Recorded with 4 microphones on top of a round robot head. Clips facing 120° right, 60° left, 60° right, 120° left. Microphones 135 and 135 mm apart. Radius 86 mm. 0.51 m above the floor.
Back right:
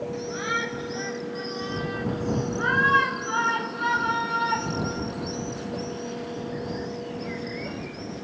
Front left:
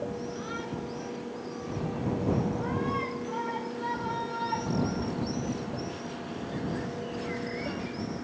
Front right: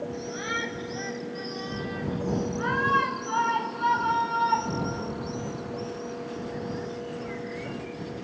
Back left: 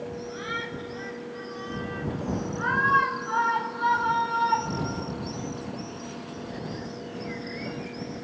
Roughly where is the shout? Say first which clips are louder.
Back right 5 dB, front right 1 dB; right.